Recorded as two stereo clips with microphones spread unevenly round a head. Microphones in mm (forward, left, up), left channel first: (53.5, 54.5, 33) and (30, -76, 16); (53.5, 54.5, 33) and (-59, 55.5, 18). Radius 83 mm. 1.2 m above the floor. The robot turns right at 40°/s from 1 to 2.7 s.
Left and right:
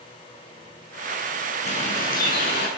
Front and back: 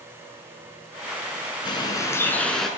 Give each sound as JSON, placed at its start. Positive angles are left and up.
{"t": 1.6, "sound": "a bird", "azimuth_deg": 45, "distance_m": 9.5}